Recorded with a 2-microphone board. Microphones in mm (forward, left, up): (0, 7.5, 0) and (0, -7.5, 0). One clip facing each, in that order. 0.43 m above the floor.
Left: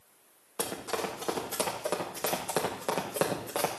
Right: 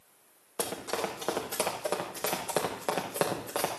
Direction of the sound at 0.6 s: 30° right (ahead or behind).